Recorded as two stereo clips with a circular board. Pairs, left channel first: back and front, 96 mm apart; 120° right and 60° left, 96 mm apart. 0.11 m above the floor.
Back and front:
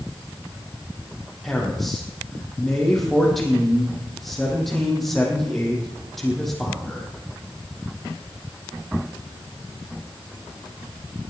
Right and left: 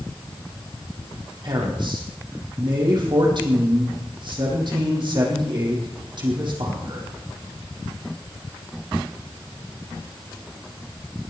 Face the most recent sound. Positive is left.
turn(degrees=90)